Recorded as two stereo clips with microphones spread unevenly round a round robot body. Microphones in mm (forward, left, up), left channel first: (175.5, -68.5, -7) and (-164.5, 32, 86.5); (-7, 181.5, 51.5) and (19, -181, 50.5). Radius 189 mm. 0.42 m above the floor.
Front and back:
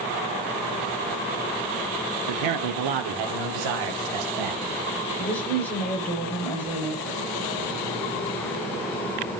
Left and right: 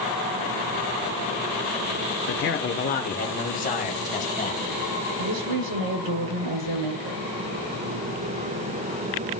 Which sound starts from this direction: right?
A woman speaking, at 5.2 s.